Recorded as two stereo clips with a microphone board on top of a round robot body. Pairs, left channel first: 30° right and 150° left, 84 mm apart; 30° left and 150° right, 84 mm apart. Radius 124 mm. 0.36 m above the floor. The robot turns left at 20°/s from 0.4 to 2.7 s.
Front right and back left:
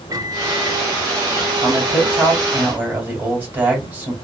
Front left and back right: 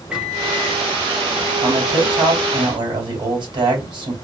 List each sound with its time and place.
0.1 s a microwave: 135° left, 1.0 m; by 0.8 s 125° left, 1.0 m
1.6 s a man speaking: 125° right, 2.5 m; by 4.1 s 145° right, 2.5 m